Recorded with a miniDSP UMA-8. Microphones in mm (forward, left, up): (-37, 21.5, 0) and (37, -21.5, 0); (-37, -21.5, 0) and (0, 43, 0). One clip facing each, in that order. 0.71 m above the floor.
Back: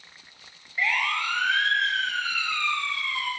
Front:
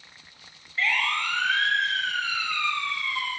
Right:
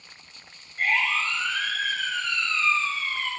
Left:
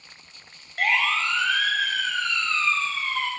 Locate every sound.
0.8 s a siren: 70° left, 2.5 m; by 3.3 s 55° left, 5.5 m